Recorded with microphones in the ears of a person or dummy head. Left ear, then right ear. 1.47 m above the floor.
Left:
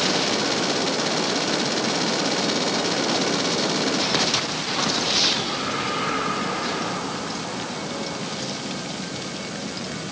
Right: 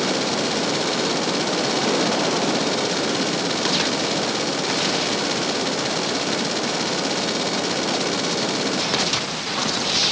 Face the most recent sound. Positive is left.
No sound to turn to.